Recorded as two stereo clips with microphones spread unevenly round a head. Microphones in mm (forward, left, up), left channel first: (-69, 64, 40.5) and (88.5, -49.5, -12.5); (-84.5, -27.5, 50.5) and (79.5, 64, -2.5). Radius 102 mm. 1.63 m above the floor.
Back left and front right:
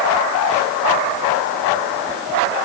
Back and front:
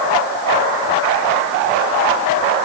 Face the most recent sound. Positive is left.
No sound to turn to.